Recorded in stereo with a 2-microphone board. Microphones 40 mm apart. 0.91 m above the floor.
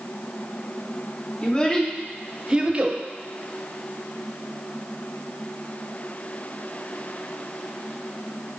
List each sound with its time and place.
1.4 s a child speaking: 25° left (ahead or behind), 1.3 m; by 3.0 s 45° right (ahead or behind), 1.0 m